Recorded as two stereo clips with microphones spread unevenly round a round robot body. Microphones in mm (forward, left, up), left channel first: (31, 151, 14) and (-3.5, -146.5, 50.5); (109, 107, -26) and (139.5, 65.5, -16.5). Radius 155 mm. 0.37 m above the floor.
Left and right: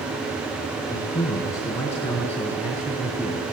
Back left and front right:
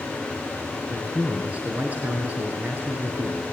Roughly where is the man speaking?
Ahead.